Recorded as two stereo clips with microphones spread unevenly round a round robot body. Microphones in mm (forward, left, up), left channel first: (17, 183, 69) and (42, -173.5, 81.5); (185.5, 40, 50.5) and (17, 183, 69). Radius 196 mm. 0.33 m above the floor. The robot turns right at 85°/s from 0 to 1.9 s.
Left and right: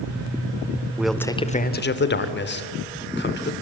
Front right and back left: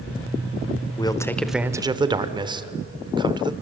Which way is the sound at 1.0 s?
Straight ahead.